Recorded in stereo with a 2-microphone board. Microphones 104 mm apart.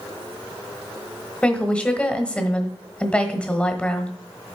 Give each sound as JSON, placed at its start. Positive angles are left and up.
{"t": 1.4, "sound": "a woman speaking", "side_deg": 10, "distance_m": 1.2}